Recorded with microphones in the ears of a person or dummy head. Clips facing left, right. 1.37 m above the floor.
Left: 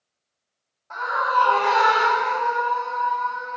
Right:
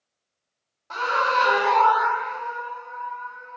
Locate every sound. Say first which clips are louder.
0.9 s a scream: even; 50° right (ahead or behind); by 3.6 s 75° left (ahead or behind)